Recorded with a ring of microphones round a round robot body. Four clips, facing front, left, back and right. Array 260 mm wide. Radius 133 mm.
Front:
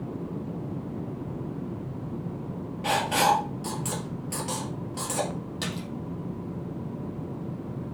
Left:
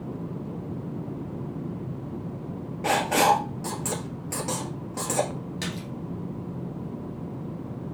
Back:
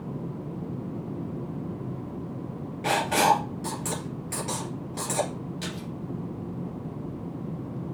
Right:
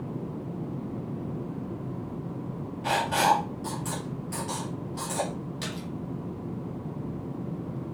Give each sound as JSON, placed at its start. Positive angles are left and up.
{"t": 2.8, "sound": "writing", "azimuth_deg": 105, "distance_m": 2.0}
{"t": 5.6, "sound": "a splash", "azimuth_deg": 25, "distance_m": 2.5}